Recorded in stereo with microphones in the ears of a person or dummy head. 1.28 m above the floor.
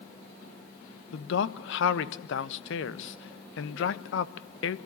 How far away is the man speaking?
About 1.1 m.